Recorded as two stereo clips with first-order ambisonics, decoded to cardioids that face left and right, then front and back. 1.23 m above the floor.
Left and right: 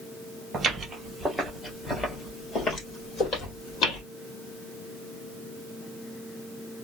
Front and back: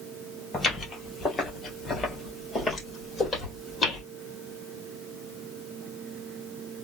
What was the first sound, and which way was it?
Footsteps, 45° right.